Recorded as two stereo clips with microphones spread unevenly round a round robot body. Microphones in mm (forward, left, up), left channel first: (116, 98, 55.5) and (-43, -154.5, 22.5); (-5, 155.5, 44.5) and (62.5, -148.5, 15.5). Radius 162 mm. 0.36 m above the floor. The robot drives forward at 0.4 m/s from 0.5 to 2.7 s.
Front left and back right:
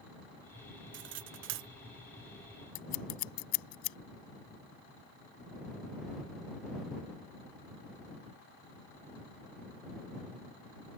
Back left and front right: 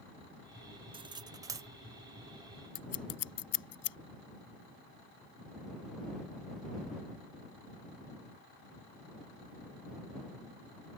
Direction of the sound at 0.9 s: 140° right.